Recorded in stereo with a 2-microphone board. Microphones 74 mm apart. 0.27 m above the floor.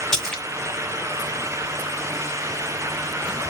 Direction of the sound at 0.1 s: 10° left (ahead or behind).